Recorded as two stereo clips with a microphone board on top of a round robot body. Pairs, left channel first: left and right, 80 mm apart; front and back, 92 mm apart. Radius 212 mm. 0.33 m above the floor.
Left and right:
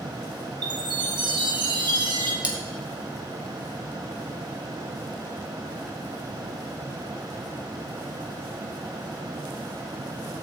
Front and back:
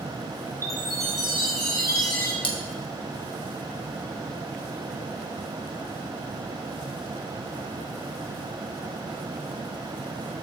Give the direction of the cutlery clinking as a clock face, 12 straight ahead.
12 o'clock.